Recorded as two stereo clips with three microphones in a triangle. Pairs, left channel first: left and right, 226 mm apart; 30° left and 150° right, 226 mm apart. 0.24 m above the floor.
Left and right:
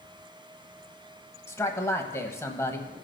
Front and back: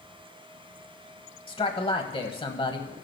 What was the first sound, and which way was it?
A man speaking, 35° left.